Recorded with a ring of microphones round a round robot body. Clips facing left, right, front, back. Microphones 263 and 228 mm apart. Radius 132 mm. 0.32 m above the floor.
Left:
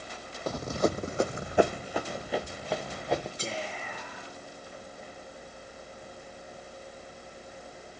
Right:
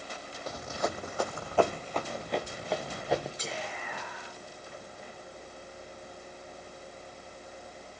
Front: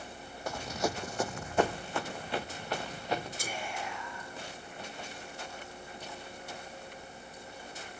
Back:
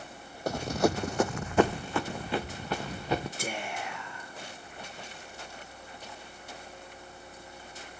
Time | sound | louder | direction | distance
0.5 | running footsteps | left 7 dB, back 7 dB | 130° left | 0.6 m
3.4 | whispering | left 2 dB, back 3 dB | 150° left | 4.5 m